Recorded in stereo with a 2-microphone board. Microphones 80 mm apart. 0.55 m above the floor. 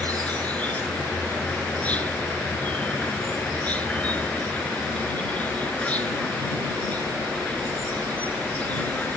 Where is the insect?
20° left (ahead or behind).